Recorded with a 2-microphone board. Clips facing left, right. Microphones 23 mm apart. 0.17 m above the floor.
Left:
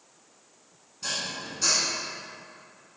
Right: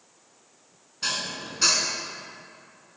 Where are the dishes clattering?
45° right (ahead or behind), 1.0 m.